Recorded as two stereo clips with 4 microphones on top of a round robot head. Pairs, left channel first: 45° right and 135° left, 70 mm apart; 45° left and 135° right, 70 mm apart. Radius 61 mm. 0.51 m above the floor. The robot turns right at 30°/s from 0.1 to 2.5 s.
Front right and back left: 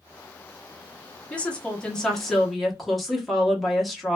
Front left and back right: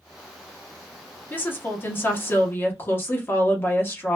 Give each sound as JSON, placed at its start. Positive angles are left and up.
{"t": 1.3, "sound": "a woman speaking", "azimuth_deg": 5, "distance_m": 1.1}